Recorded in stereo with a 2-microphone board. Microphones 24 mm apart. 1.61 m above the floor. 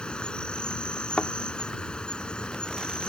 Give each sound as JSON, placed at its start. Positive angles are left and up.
{"t": 0.0, "sound": "an insect", "side_deg": 40}
{"t": 1.2, "sound": "a thud", "side_deg": 50}